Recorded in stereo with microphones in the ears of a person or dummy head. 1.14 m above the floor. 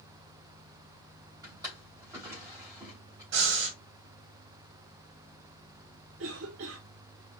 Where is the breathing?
65° right (ahead or behind), 1.6 m.